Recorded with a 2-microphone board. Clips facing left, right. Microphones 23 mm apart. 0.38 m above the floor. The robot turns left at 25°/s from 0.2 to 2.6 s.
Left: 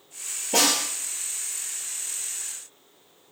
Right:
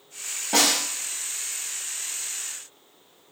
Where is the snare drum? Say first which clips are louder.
Right 1 dB; 60° right (ahead or behind), 1.3 m; by 0.8 s 50° right (ahead or behind), 1.3 m.